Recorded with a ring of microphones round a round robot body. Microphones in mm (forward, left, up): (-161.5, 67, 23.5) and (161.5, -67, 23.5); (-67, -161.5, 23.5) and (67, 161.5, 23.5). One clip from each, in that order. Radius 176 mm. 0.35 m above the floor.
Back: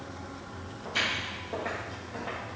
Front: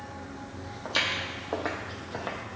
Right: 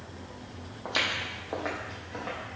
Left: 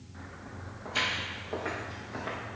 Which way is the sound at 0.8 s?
75° right.